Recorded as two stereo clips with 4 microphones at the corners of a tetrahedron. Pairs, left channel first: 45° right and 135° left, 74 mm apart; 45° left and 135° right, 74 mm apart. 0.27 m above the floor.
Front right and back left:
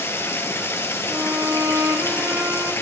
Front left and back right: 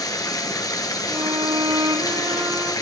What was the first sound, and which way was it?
Running water, 10° left.